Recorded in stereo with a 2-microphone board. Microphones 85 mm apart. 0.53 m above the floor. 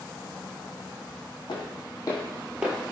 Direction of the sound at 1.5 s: 65° left (ahead or behind).